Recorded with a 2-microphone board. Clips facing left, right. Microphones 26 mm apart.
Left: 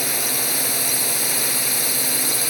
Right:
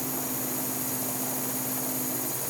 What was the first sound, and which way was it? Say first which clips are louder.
A drone: left 9 dB; 75° left (ahead or behind).